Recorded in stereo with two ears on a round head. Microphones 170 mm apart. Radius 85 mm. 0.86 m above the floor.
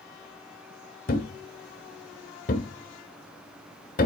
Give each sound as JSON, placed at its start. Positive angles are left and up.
{"t": 1.1, "sound": "a thud", "side_deg": 45, "distance_m": 1.4}